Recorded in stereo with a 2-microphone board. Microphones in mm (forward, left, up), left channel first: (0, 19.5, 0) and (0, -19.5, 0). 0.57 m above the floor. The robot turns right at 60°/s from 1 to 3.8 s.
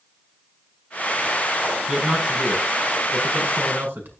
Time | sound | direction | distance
1.9 | a man speaking | 170° right | 7.5 m